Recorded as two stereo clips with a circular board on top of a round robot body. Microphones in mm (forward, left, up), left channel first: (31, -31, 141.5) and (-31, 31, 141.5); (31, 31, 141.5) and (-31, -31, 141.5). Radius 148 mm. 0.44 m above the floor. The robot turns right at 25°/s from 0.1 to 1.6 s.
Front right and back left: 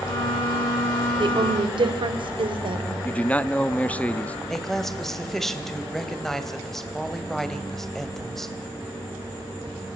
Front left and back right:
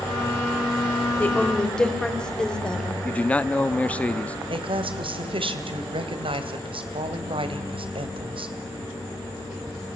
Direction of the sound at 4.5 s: 130° right.